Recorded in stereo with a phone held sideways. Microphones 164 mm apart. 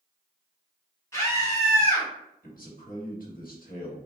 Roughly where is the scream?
Centre.